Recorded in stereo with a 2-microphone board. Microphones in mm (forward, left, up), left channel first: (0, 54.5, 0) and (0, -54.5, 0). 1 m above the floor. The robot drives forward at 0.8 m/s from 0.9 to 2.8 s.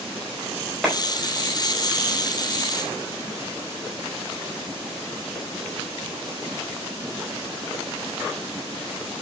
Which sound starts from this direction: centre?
A clap, at 0.8 s.